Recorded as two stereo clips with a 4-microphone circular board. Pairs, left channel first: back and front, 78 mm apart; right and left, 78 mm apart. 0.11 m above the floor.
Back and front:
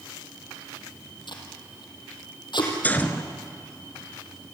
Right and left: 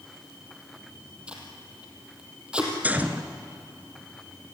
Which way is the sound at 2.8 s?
135° left.